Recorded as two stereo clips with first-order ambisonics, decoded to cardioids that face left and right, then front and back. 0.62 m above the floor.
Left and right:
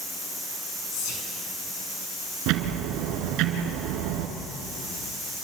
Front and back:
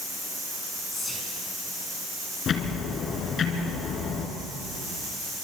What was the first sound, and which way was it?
Whispering, 80° left.